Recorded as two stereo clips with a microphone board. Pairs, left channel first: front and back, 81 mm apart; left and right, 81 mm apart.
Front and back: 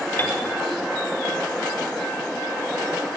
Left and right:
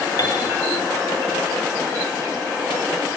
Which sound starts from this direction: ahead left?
A piano, at 0.2 s.